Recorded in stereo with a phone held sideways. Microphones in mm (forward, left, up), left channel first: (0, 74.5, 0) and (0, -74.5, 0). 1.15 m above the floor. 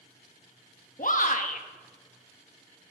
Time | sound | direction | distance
1.0 | a shout | 60° left (ahead or behind) | 1.4 m